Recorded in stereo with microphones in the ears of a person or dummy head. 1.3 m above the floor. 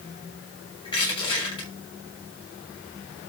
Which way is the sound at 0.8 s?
25° left (ahead or behind).